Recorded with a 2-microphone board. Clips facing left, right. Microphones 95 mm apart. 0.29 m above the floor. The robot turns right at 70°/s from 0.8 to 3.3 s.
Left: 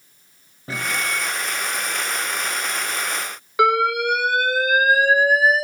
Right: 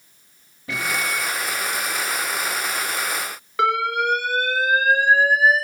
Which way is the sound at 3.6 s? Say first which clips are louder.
Left 3 dB; 10° left (ahead or behind).